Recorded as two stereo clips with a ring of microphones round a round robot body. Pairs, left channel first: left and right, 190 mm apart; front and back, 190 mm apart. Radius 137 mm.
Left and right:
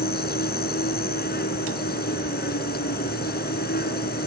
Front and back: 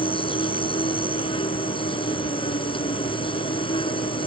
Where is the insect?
60° left.